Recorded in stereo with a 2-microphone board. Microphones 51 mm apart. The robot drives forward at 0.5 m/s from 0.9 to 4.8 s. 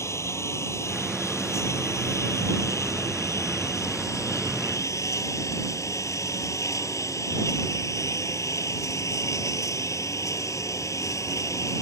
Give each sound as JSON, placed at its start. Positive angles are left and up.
{"t": 0.0, "sound": "a lawn mower", "side_deg": 60}